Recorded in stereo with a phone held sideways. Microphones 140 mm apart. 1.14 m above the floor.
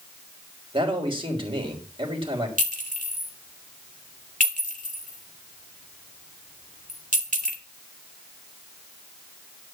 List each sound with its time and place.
0.7 s a man speaking: 40° right (ahead or behind), 3.5 m
2.6 s a clink: 65° right (ahead or behind), 2.5 m